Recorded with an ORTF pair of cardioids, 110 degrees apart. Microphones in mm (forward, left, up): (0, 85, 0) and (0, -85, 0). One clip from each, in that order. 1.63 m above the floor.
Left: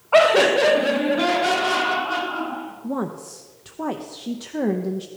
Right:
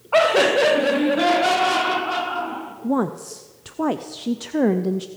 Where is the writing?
No writing in this recording.